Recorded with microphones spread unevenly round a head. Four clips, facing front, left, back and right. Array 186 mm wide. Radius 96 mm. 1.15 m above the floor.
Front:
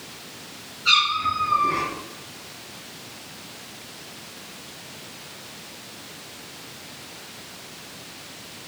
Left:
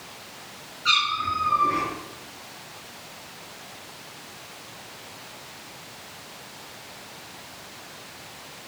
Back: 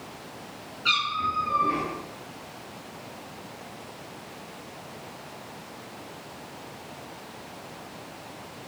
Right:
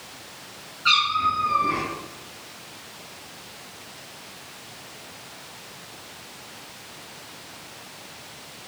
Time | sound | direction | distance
0.8 | a cat meowing | 145° right | 7 m